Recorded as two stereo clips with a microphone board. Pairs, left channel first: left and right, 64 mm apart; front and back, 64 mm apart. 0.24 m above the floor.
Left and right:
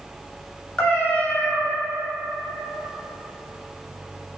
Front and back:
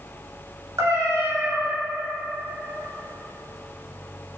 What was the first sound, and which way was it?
A cat meowing, 155° left.